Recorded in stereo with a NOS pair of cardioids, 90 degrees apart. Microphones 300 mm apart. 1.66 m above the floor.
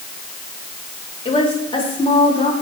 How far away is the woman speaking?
About 4.5 m.